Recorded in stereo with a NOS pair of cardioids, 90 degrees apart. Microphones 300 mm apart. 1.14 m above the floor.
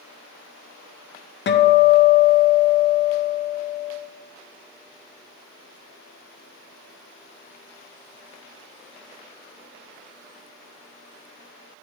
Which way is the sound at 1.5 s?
40° left.